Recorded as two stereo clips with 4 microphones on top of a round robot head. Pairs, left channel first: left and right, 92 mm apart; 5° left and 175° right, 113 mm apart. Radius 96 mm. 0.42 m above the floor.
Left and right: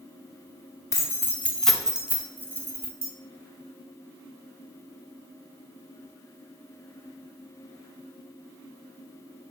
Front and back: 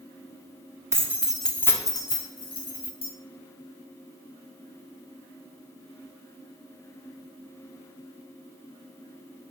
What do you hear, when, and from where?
0.9 s keys jangling: 130° left, 0.6 m; by 3.1 s 30° right, 1.2 m